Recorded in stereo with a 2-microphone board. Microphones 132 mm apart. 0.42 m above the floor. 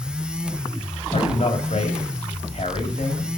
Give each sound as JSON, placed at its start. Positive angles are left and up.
{"t": 1.1, "sound": "a man speaking", "side_deg": 65, "distance_m": 2.5}